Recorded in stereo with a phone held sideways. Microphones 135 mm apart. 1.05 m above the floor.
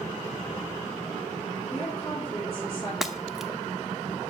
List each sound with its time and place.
1.7 s a woman speaking: 45° left (ahead or behind), 3.5 m
3.0 s breaking glass: centre (ahead or behind), 0.8 m